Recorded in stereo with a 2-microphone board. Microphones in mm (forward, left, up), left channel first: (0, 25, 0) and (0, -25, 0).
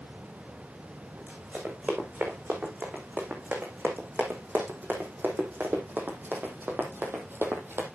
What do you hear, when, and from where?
1.2 s running footsteps: 35° right (ahead or behind), 6 m; by 7.9 s 50° right (ahead or behind), 3 m